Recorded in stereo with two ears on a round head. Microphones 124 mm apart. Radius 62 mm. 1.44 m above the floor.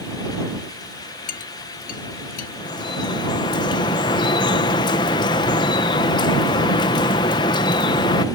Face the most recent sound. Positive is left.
turn(degrees=30)  # may be behind; listen again after turning